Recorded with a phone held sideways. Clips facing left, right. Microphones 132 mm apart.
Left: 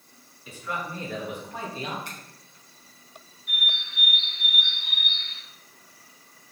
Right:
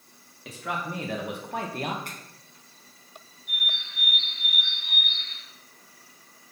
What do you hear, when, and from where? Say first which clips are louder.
0.5 s a man speaking: right 1 dB; 80° right, 2.5 m; by 1.9 s 55° right (ahead or behind), 1.3 m
2.0 s a finger snap: even; 50° right (ahead or behind), 4.5 m
3.5 s a bird: left 2 dB; 65° left (ahead or behind), 2 m